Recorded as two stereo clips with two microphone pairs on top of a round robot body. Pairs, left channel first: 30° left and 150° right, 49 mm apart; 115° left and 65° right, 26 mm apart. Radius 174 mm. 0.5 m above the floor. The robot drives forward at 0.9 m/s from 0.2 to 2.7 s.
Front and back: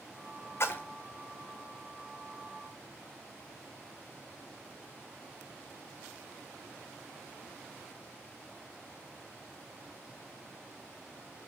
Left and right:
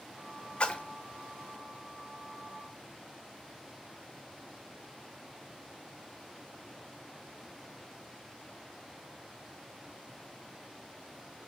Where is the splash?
60° left, 0.9 m; by 0.8 s 75° left, 0.8 m.